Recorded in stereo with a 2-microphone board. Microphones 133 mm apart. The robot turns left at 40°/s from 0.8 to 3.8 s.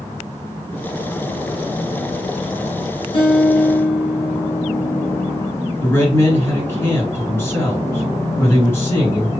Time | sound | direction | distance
3.1 | a guitar | 45° left (ahead or behind) | 1.6 m
5.8 | a man speaking | 20° left (ahead or behind) | 2 m